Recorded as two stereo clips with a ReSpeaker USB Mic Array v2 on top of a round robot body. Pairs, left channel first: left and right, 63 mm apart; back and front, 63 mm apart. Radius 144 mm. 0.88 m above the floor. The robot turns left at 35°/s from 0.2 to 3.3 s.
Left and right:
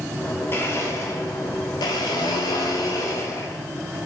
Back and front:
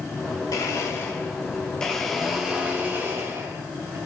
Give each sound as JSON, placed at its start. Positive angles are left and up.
{"t": 0.5, "sound": "a blender", "azimuth_deg": 150, "distance_m": 0.6}